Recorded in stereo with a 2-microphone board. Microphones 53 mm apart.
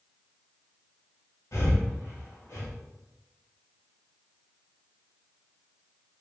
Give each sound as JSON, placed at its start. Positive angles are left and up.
{"t": 1.5, "sound": "breathing", "side_deg": 75, "distance_m": 1.7}